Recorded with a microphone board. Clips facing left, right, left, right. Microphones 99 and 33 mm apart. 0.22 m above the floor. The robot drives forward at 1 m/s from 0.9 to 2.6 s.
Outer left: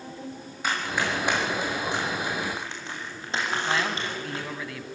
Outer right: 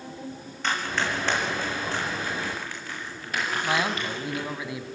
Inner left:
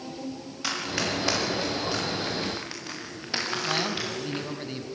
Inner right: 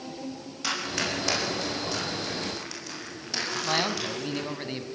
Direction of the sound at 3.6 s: 20° right (ahead or behind).